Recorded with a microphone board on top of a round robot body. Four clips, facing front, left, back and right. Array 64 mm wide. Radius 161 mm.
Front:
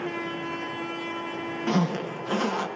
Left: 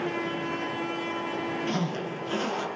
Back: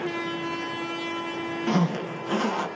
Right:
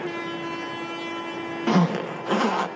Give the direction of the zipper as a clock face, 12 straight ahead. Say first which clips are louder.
Right 8 dB, even; 3 o'clock.